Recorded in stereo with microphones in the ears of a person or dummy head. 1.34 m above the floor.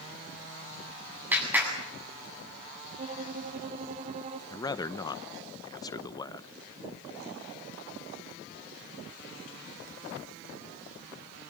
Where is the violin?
35° right (ahead or behind), 2.5 m.